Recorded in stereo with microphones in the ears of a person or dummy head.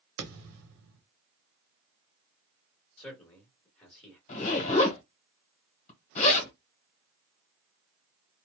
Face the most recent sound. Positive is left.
turn(degrees=40)  # may be behind; listen again after turning